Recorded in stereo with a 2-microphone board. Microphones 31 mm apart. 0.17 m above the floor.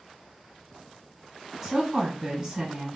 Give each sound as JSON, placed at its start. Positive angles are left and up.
{"t": 1.6, "sound": "a woman speaking", "side_deg": -20, "distance_m": 1.7}